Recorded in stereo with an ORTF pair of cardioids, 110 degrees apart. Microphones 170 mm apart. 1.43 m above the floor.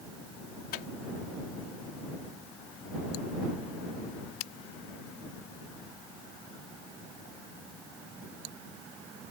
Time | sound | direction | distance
0.7 | a microwave | 65° left | ?